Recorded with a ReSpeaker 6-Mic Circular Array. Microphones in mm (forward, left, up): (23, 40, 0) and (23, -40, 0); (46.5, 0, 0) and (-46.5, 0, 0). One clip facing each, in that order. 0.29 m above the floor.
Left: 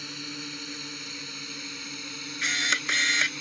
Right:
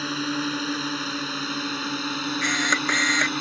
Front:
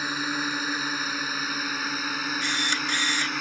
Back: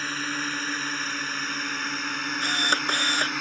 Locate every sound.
0.0 s a drone: 80° right; by 3.4 s 90° right
2.4 s a camera shutter: 145° right